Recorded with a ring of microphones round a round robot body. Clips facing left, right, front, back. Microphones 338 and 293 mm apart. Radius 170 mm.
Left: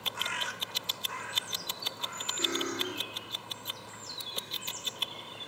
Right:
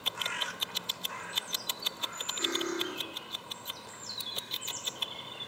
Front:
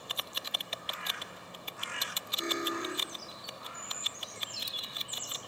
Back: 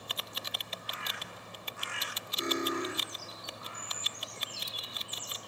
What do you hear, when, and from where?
2.4 s cutlery clinking: 150° left, 1.5 m